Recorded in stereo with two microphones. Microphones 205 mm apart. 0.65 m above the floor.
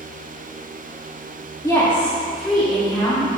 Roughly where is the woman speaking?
Centre.